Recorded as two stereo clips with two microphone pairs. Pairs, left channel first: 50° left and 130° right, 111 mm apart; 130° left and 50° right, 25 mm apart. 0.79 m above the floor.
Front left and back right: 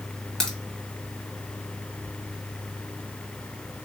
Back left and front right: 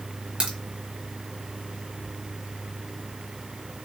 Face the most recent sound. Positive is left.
turn(degrees=-35)